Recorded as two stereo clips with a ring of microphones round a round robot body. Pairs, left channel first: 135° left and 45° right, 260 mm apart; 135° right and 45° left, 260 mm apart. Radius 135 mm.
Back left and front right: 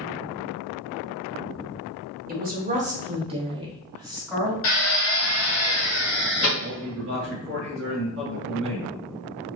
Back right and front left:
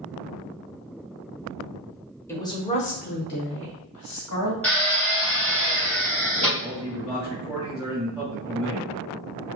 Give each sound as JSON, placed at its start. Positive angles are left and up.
{"t": 2.3, "sound": "a woman speaking", "azimuth_deg": -60, "distance_m": 1.4}
{"t": 4.6, "sound": "a drill", "azimuth_deg": 140, "distance_m": 2.5}
{"t": 6.6, "sound": "a man speaking", "azimuth_deg": -40, "distance_m": 2.0}